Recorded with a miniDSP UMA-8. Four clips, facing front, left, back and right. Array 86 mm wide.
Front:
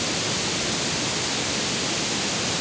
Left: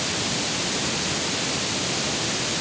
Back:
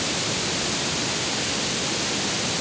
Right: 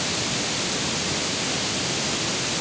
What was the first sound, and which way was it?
Only background noise.